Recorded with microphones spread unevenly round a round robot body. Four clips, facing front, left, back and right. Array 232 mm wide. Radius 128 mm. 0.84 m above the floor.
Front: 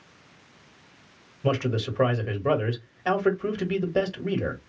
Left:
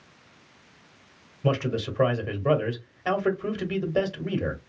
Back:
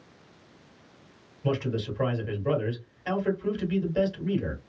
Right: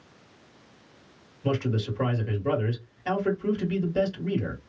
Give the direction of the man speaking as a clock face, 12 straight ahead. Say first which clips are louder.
Left 2 dB, front 3 dB; 11 o'clock.